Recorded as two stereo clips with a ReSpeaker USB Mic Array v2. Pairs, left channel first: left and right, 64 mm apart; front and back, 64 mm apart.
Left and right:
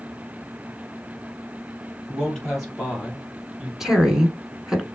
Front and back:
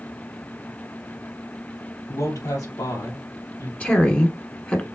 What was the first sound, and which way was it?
A man speaking, 5° left.